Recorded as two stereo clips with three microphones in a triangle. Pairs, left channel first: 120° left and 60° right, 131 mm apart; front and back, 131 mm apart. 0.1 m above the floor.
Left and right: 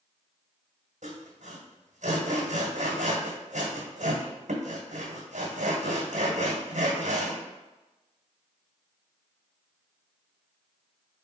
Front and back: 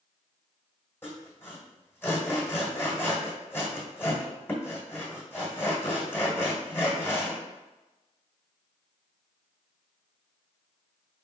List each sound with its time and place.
1.0 s sawing: 70° right, 1.5 m